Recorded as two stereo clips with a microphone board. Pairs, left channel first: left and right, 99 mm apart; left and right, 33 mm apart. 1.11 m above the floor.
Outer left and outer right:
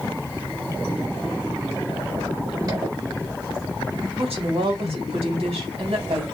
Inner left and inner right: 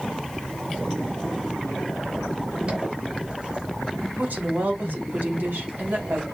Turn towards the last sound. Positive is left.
turn(degrees=-75)  # may be behind; listen again after turning